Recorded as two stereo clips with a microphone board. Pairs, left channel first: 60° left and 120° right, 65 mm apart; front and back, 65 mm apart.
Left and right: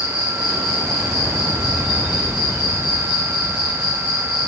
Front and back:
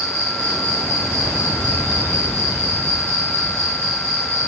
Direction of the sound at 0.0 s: 165° left.